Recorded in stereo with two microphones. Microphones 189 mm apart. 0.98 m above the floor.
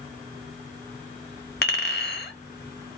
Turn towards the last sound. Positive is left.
turn(degrees=65)  # may be behind; listen again after turning